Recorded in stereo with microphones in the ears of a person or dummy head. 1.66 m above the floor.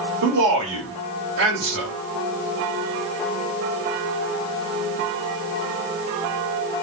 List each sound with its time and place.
0.2 s a man speaking: 70° right (ahead or behind), 1.9 m